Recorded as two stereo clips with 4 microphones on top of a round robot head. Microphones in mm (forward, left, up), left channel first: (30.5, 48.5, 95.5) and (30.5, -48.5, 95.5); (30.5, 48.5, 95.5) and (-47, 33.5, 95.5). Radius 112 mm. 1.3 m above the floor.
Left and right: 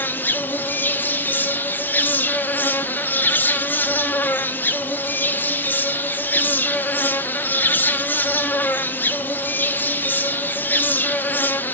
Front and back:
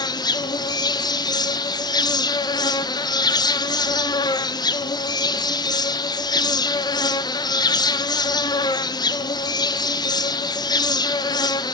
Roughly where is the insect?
Ahead.